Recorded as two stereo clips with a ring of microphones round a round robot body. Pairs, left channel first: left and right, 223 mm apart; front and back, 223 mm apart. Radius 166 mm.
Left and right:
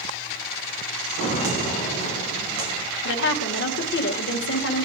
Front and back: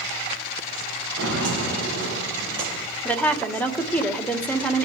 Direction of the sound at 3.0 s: 85° left.